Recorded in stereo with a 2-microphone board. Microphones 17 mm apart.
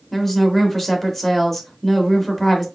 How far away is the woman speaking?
About 0.8 m.